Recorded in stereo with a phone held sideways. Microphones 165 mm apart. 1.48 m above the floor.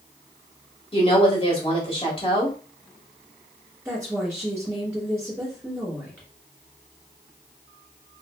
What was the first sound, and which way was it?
A woman speaking, 35° left (ahead or behind).